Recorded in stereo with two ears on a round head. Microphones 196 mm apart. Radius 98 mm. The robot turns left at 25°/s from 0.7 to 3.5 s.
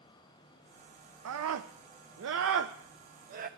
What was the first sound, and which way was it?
A scream, 75° right (ahead or behind).